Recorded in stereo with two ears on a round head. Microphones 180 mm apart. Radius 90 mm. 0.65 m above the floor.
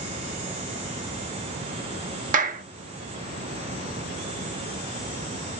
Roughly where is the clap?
Right.